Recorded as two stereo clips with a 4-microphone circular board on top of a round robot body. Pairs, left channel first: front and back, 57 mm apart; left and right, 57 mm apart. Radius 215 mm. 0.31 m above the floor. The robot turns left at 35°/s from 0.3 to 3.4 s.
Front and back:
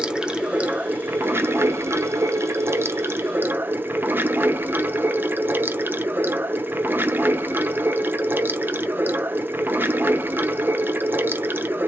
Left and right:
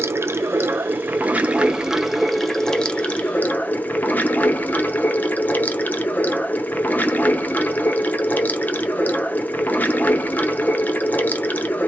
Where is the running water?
110° right, 0.8 m; by 11.9 s 140° left, 0.8 m.